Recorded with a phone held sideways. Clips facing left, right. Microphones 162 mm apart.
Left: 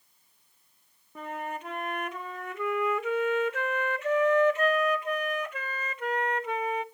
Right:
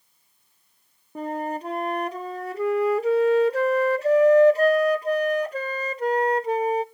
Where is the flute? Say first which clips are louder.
Right 8 dB; 35° right (ahead or behind), 0.6 m.